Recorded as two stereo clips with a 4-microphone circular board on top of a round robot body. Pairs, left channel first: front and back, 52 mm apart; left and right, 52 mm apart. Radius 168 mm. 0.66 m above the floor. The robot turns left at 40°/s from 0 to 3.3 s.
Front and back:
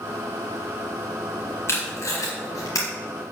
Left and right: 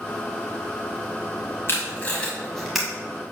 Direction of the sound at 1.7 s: 40° left.